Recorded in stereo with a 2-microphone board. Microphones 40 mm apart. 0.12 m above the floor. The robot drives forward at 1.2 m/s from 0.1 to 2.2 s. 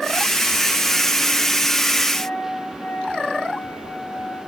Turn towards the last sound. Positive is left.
turn(degrees=65)  # may be behind; listen again after turning